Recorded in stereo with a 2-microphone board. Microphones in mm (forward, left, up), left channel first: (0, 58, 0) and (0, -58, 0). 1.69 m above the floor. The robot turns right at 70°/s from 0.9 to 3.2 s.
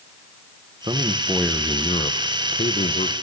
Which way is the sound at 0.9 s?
40° right.